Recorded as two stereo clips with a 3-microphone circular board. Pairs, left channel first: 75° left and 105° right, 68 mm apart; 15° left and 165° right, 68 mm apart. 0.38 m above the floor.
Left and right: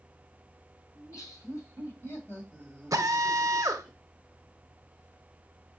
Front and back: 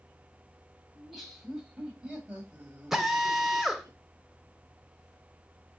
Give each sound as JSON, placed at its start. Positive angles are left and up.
{"t": 0.9, "sound": "laughter", "azimuth_deg": 105, "distance_m": 1.9}
{"t": 2.9, "sound": "a drill", "azimuth_deg": -80, "distance_m": 0.6}